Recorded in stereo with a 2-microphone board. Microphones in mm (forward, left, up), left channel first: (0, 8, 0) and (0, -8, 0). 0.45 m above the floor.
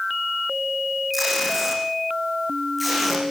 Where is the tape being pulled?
Centre (ahead or behind), 9 m.